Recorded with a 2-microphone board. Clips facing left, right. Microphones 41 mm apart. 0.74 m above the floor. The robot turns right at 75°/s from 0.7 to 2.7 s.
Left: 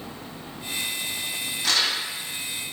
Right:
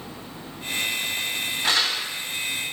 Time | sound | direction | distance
1.6 | crumpling | 20° right (ahead or behind) | 3 m